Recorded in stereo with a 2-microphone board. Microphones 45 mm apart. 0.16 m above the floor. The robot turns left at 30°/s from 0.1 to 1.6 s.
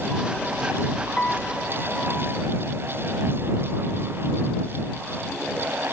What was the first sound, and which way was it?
A piano, 25° left (ahead or behind).